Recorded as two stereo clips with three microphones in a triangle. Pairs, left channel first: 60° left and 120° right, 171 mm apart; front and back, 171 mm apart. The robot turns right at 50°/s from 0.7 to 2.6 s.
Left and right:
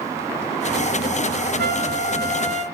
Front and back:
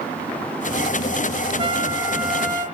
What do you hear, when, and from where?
1.6 s a trumpet: 125° right, 1.0 m; by 2.6 s 75° right, 1.0 m